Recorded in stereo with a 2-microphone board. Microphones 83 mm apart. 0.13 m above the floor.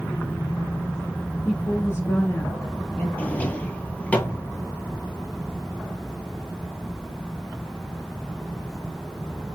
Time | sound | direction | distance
1.4 | a woman speaking | 35° left (ahead or behind) | 2.5 m
3.2 | a drawer | 15° left (ahead or behind) | 1.1 m